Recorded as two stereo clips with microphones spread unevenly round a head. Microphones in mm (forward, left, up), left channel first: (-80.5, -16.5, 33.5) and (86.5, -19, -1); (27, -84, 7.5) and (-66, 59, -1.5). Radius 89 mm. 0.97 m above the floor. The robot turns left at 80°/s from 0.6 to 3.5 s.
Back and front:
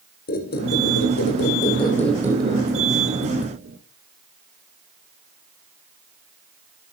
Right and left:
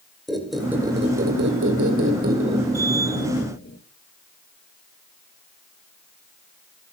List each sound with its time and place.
0.3 s a squeak: 145° right, 3 m; by 3.8 s 20° right, 3 m